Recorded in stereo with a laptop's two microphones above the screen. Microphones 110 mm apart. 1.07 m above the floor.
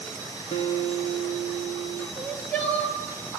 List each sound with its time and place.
0.5 s a guitar: 70° left (ahead or behind), 1.5 m
2.2 s crying: 15° left (ahead or behind), 1.9 m